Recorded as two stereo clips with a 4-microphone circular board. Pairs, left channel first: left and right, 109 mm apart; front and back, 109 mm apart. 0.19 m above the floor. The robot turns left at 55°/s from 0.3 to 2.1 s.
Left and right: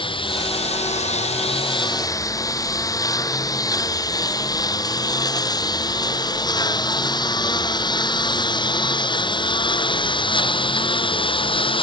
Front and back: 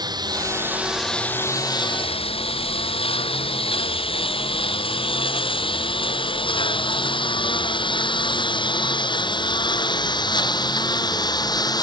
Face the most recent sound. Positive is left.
turn(degrees=55)